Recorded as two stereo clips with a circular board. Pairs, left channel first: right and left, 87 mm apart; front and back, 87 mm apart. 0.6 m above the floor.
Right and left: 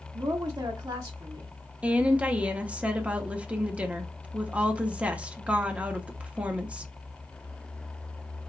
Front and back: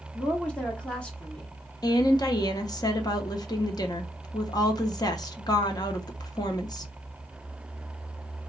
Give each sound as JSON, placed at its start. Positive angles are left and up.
{"t": 0.1, "sound": "a woman speaking", "azimuth_deg": 75, "distance_m": 0.8}
{"t": 1.8, "sound": "a woman speaking", "azimuth_deg": 15, "distance_m": 0.7}